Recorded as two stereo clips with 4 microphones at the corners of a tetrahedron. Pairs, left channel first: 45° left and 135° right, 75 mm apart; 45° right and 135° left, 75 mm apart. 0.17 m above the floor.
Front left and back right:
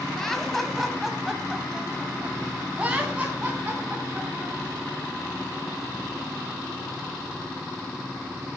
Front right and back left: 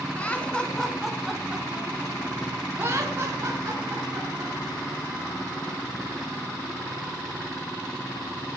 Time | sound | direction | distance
0.2 | laughter | 35° right | 1.5 m